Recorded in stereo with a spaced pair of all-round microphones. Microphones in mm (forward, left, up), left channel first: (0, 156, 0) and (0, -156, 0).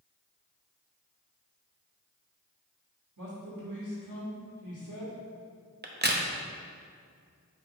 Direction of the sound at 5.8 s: 35° right (ahead or behind).